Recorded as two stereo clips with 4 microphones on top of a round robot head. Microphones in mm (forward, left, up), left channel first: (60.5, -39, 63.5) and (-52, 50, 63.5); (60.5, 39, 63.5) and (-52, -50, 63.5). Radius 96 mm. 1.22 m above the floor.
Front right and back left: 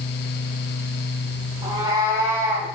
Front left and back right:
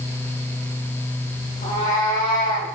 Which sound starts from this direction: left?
A cat meowing, at 1.6 s.